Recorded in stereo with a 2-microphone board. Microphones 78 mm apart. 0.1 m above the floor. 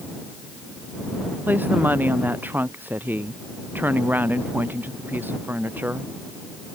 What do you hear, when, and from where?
1.5 s a woman speaking: 25° right (ahead or behind)